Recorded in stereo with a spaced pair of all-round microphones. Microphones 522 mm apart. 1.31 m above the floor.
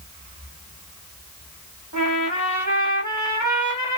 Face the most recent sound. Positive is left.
turn(degrees=-35)  # may be behind; listen again after turning